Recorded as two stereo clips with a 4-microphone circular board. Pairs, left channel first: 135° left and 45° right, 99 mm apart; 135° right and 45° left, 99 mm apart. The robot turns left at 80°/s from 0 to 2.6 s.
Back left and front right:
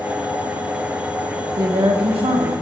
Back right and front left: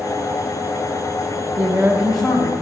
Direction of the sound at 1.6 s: Straight ahead.